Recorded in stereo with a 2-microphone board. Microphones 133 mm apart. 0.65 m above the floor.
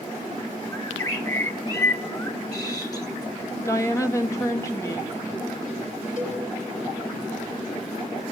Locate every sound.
0.7 s a bird: 25° left (ahead or behind), 0.9 m
3.6 s a woman speaking: 20° left (ahead or behind), 1.2 m
6.2 s a cowbell: 55° left (ahead or behind), 3.5 m